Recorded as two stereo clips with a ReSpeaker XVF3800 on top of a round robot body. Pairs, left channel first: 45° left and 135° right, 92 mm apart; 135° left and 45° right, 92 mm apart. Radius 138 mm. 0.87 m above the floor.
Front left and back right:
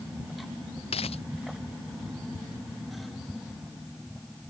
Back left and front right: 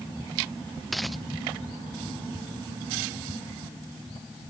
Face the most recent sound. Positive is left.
turn(degrees=45)